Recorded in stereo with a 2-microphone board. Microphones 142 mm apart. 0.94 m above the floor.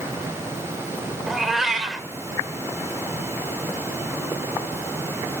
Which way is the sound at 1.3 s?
Centre (ahead or behind).